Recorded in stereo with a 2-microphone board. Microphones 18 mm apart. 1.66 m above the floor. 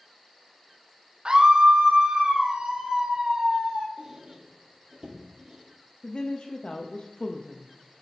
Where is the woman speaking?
70° left (ahead or behind), 0.7 m.